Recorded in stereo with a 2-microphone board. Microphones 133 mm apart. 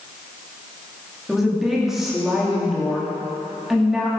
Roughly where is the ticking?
I don't hear ticking.